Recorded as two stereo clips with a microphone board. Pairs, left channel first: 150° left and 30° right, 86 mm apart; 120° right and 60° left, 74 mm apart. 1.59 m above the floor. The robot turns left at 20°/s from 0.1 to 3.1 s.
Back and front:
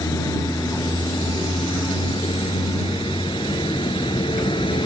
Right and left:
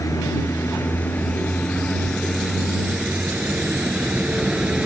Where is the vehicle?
165° right; by 4.9 s 135° left.